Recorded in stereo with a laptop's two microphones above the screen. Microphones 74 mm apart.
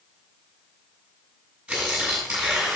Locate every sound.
1.7 s tearing paper: 10° right (ahead or behind), 6.5 m